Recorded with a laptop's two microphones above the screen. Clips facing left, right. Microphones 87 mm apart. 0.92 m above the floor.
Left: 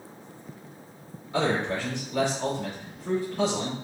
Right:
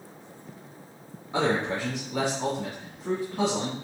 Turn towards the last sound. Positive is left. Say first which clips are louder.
# even
turn(degrees=-20)  # may be behind; listen again after turning